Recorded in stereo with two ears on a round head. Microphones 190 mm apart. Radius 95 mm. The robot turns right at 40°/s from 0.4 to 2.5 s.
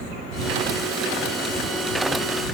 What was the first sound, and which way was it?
Only background noise.